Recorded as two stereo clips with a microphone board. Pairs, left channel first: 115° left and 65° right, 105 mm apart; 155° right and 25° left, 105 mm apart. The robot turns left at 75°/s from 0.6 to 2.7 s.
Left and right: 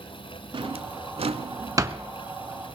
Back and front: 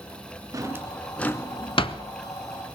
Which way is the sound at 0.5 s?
35° right.